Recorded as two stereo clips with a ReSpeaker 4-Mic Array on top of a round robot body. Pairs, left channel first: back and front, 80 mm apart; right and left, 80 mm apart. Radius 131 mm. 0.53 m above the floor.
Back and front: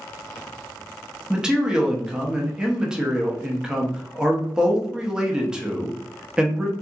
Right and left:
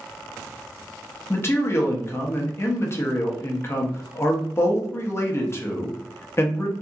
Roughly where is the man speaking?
Right.